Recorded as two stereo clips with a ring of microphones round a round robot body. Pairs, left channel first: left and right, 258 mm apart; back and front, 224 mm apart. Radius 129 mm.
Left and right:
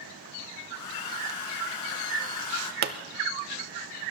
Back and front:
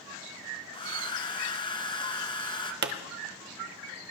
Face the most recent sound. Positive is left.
turn(degrees=-40)